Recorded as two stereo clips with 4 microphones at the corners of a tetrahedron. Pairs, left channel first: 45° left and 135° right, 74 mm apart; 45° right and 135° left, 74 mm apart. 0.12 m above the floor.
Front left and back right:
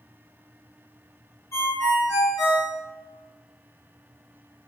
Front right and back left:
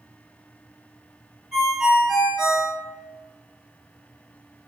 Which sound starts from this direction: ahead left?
A ringtone, at 1.5 s.